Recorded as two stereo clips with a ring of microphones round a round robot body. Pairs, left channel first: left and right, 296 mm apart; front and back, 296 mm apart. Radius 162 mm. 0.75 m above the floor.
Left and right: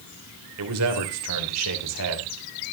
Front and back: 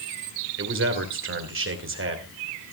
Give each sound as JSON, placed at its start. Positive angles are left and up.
{"t": 0.6, "sound": "a man speaking", "azimuth_deg": -130, "distance_m": 3.0}